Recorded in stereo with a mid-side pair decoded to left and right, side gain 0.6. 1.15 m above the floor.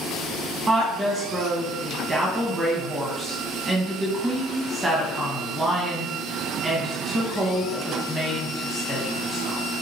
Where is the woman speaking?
20° right, 1.3 m.